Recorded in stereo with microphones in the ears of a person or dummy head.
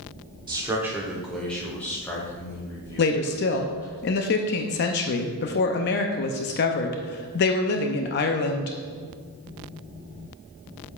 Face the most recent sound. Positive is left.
turn(degrees=50)  # may be behind; listen again after turning